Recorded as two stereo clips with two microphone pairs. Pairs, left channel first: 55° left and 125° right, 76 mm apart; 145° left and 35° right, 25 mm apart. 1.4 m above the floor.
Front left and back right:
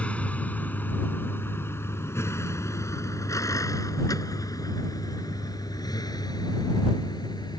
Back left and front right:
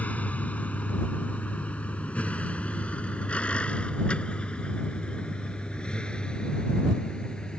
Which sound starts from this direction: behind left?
A vehicle, at 0.0 s.